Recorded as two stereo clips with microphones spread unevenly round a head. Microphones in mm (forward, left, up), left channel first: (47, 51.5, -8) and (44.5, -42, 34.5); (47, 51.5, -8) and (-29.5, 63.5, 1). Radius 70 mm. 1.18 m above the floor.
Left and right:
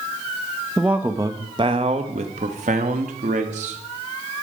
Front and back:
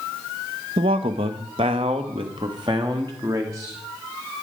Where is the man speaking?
Straight behind, 1.0 m; by 3.8 s 115° right, 2 m.